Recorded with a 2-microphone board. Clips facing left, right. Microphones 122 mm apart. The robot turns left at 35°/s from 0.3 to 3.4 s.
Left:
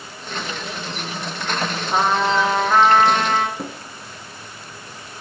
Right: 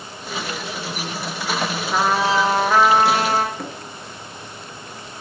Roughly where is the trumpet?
Ahead.